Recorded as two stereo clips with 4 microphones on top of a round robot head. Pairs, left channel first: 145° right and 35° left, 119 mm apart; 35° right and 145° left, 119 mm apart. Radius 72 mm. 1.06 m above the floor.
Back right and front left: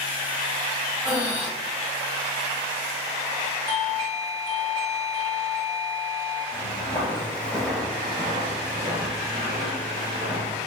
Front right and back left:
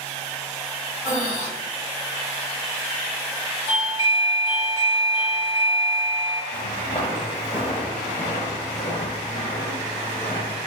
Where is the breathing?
20° right, 1.4 m.